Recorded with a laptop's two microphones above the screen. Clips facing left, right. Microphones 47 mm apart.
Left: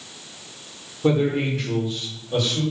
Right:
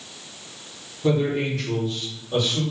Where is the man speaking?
30° left (ahead or behind), 0.8 m; by 2.6 s 10° right (ahead or behind), 1.2 m.